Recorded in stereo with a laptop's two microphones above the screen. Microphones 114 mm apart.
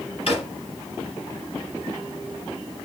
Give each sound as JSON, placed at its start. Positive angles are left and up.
{"t": 0.3, "sound": "a drawer", "side_deg": 60, "distance_m": 5.5}